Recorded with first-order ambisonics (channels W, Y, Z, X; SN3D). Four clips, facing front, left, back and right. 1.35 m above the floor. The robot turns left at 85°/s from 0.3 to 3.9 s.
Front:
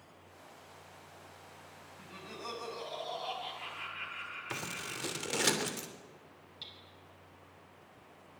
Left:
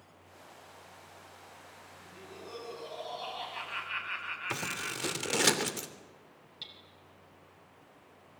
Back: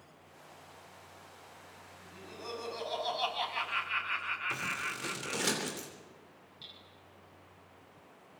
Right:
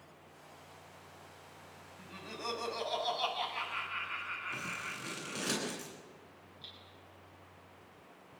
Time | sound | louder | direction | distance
2.0 | laughter | right 7 dB, front 2 dB | 50° right | 8.5 m
4.5 | scissors | left 4 dB, back 4 dB | 75° left | 3 m
6.6 | hammering | left 5 dB, front 2 dB | 65° left | 5.5 m